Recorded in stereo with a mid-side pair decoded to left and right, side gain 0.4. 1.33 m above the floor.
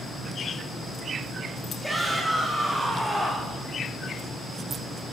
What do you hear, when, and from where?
1.8 s a shout: 5° right, 4 m